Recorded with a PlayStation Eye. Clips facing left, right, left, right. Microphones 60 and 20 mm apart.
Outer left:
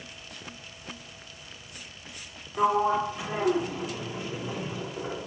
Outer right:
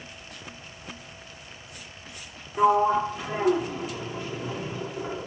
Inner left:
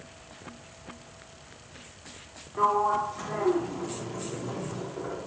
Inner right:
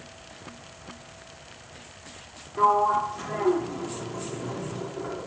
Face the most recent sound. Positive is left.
turn(degrees=5)  # may be behind; listen again after turning